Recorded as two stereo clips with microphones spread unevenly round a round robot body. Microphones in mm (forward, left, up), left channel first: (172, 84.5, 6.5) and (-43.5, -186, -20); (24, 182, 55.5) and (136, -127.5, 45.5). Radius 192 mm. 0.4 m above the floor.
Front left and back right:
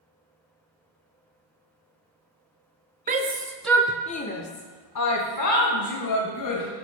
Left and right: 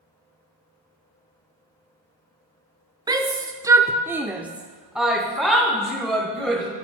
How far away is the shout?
About 0.8 m.